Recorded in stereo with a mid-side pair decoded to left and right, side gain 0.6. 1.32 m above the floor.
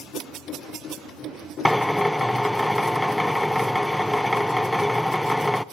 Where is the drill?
5° left, 0.8 m.